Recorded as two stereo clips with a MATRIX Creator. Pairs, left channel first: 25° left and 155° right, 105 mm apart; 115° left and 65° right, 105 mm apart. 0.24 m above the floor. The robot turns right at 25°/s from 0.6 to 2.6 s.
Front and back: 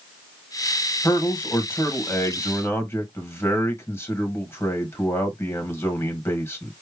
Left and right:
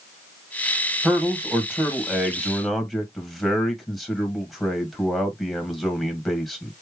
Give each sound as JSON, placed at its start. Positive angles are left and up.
{"t": 1.0, "sound": "a man speaking", "azimuth_deg": -15, "distance_m": 1.5}